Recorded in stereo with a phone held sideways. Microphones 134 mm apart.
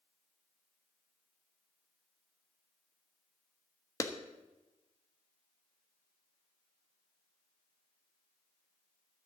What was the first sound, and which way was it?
A clap, 25° left (ahead or behind).